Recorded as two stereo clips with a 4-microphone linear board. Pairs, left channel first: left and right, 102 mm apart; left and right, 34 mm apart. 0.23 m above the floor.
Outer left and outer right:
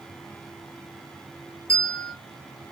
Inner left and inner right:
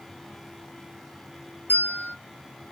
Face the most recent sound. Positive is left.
turn(degrees=70)  # may be behind; listen again after turning